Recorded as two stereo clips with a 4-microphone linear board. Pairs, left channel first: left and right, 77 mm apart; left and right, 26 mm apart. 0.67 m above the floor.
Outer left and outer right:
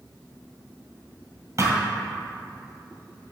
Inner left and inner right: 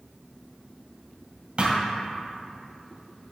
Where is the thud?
45° right (ahead or behind), 1.8 m.